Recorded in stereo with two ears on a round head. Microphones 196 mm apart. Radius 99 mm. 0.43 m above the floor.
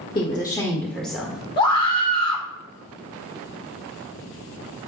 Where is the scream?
20° left (ahead or behind), 1.3 m.